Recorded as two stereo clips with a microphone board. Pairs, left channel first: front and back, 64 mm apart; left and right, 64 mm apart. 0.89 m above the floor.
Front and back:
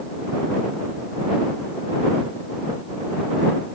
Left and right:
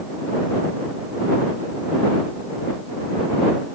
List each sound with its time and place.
Only background noise.